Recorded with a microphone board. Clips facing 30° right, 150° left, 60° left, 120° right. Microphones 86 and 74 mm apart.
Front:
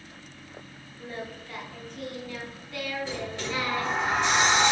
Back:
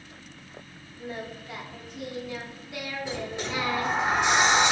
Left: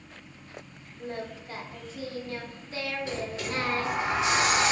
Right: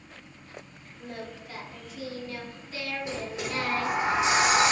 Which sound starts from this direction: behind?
A sliding door, at 3.0 s.